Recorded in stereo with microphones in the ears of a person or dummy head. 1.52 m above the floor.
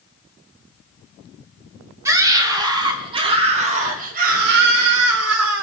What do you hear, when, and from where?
2.0 s a scream: 20° right (ahead or behind), 3.5 m; by 5.6 s 75° right (ahead or behind), 2.5 m